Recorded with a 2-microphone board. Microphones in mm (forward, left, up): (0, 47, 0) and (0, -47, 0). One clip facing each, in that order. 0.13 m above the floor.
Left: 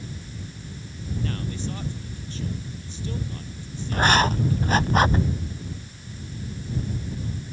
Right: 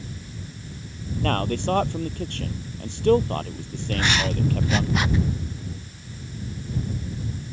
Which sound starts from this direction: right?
A man speaking, at 1.2 s.